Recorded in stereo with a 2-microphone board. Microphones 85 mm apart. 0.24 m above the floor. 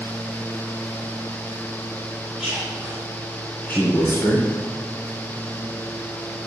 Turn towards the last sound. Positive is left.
turn(degrees=40)  # may be behind; listen again after turning